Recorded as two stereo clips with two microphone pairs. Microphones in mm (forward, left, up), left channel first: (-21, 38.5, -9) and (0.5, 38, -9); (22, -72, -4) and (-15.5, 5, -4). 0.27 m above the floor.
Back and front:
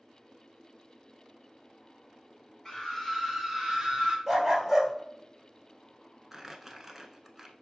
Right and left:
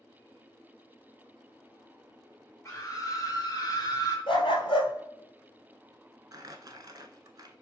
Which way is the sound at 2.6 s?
110° right.